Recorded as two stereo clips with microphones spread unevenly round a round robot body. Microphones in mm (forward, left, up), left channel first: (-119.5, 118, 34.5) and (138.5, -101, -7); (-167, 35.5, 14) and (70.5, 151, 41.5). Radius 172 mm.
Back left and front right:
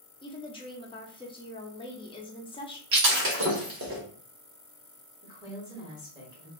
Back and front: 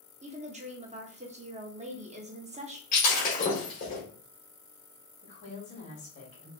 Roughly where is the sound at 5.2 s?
Right.